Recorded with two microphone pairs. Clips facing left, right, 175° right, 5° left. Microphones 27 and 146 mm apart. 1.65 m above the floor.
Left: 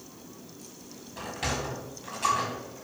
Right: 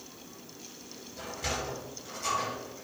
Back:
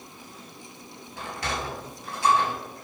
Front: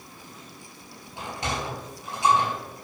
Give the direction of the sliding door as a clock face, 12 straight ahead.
9 o'clock.